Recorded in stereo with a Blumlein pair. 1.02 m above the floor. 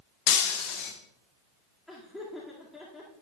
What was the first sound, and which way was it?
Breaking glass, 45° left.